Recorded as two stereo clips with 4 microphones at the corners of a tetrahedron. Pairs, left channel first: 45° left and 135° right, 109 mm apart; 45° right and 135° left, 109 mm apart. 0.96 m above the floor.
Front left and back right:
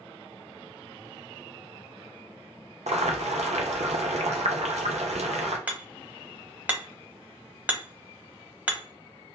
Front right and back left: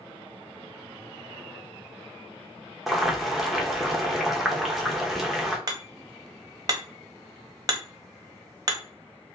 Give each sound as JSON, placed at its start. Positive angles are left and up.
{"t": 2.9, "sound": "boiling", "azimuth_deg": -135, "distance_m": 0.6}
{"t": 5.7, "sound": "hammering", "azimuth_deg": 160, "distance_m": 0.7}